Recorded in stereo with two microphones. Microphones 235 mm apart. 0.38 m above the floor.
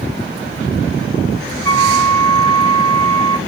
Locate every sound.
1.6 s a flute: 15° left (ahead or behind), 0.9 m